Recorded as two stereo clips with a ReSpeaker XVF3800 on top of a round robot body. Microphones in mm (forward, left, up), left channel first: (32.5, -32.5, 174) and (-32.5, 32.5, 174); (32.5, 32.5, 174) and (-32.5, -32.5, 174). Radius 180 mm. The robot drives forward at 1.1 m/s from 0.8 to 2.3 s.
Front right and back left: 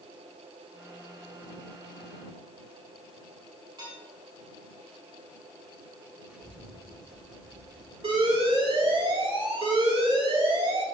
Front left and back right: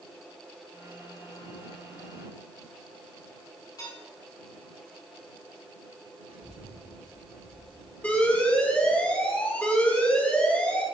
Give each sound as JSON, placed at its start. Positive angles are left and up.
{"t": 3.8, "sound": "dishes clattering", "azimuth_deg": 95, "distance_m": 5.0}
{"t": 6.3, "sound": "a child speaking", "azimuth_deg": -150, "distance_m": 3.0}
{"t": 8.0, "sound": "an alarm", "azimuth_deg": 120, "distance_m": 3.0}